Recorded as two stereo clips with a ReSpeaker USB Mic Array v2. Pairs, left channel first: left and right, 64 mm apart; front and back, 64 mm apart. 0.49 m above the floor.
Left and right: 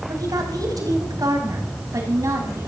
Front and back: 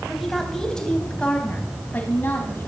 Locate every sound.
0.1 s a woman speaking: 90° right, 3.5 m; by 2.7 s 55° right, 4.5 m